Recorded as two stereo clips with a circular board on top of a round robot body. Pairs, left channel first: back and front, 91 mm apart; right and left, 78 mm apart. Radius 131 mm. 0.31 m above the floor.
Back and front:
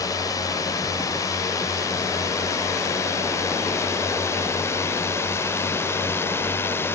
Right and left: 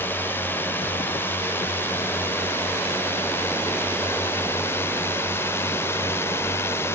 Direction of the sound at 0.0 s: 145° right.